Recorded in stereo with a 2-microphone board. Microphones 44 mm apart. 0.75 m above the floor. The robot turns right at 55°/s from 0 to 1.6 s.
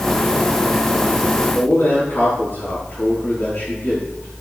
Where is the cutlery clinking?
No cutlery clinking in this recording.